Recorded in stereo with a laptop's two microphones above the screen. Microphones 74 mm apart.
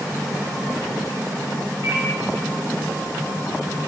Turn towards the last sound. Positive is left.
turn(degrees=-40)  # may be behind; listen again after turning